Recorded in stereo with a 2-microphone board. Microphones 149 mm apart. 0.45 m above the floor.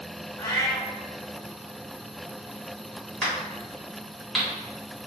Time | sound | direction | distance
0.4 | a cat meowing | 20° left (ahead or behind) | 0.6 m
3.2 | a crack | centre (ahead or behind) | 1.2 m